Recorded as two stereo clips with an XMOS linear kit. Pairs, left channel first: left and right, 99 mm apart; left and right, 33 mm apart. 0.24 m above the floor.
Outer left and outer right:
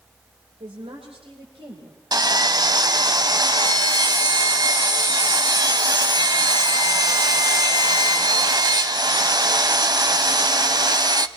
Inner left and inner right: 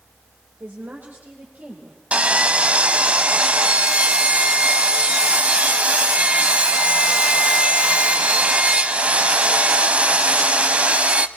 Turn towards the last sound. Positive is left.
turn(degrees=-45)  # may be behind; listen again after turning